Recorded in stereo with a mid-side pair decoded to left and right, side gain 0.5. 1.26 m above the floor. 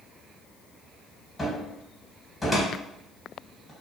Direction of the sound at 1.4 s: 20° left.